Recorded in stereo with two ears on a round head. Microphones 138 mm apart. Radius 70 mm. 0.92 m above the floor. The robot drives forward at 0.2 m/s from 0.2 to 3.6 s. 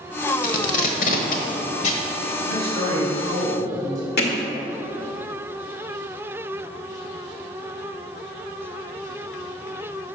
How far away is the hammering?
About 1.7 m.